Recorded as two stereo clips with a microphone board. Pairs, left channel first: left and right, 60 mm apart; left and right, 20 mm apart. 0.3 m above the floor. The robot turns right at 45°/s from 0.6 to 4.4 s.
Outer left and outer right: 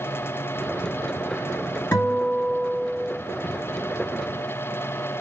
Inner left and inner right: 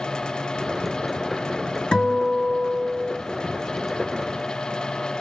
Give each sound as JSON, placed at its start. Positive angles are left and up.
{"t": 1.9, "sound": "a guitar", "azimuth_deg": 130, "distance_m": 2.5}